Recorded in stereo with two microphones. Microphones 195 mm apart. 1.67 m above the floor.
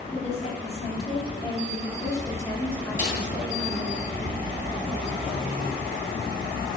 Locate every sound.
0.1 s a woman speaking: 40° left (ahead or behind), 4 m; by 4.0 s centre (ahead or behind), 4 m
3.0 s a snare drum: 45° right (ahead or behind), 4.5 m